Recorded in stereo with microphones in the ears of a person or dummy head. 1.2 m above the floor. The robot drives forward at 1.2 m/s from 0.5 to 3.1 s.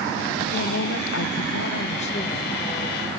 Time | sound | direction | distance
0.5 | a woman speaking | 45° left (ahead or behind) | 1.1 m